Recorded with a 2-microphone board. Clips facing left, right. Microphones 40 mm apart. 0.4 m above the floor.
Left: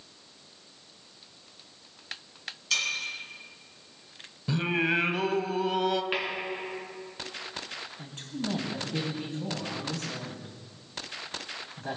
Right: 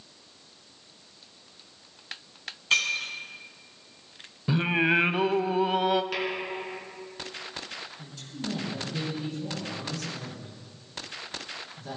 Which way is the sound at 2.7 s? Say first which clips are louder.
Right 4 dB; 40° right (ahead or behind).